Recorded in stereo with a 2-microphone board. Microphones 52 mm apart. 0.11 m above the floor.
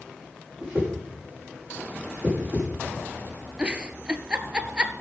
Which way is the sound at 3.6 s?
20° right (ahead or behind).